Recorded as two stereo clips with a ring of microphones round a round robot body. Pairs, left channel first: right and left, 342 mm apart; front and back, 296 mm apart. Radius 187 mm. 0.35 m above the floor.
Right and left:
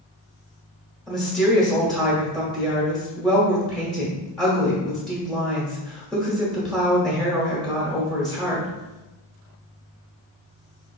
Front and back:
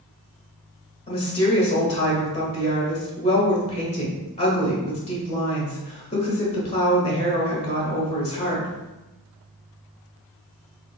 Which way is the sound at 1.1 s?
5° right.